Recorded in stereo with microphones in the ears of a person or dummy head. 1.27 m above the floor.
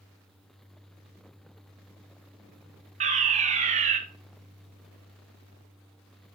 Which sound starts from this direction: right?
A fire alarm, at 3.0 s.